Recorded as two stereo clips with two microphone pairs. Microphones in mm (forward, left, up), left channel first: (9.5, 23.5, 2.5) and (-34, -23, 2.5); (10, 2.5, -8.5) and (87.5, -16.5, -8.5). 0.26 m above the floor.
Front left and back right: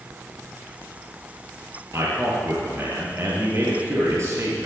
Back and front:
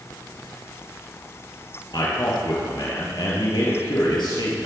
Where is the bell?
No bell in this recording.